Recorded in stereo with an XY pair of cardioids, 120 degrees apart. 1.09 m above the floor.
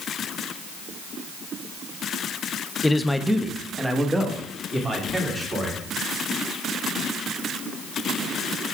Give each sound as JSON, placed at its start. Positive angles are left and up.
{"t": 2.8, "sound": "a man speaking", "azimuth_deg": 15, "distance_m": 0.5}